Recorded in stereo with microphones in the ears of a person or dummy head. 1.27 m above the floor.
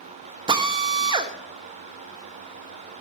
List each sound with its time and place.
0.5 s a drill: 25° right (ahead or behind), 1.1 m